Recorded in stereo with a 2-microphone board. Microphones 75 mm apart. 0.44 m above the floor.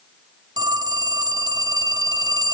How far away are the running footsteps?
I don't hear running footsteps.